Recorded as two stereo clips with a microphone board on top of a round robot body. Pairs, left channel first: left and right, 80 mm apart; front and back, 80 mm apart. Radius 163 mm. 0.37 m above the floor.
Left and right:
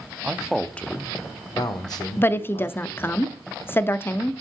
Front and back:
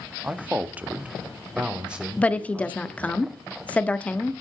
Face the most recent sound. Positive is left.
turn(degrees=60)